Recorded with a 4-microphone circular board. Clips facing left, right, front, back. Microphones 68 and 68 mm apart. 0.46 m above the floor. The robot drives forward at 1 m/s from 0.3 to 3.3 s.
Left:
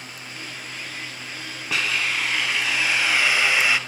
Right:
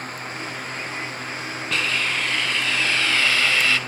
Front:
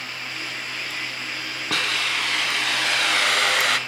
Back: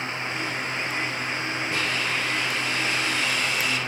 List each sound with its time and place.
1.7 s a hiss: 5° left, 2.5 m; by 3.8 s 15° left, 1.1 m